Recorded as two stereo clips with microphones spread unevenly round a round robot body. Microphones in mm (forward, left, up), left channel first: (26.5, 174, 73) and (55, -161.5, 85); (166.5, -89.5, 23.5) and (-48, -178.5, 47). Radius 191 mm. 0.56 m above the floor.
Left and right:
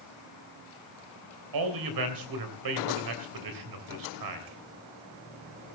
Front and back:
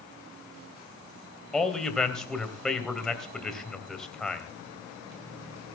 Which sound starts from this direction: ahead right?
A man speaking, at 1.5 s.